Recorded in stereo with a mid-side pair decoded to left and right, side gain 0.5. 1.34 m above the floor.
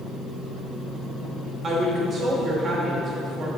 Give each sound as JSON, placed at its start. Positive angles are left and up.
{"t": 1.6, "sound": "a woman speaking", "azimuth_deg": -35, "distance_m": 2.5}